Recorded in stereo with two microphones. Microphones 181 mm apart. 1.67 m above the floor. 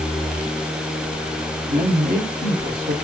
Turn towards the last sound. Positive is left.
turn(degrees=-55)  # may be behind; listen again after turning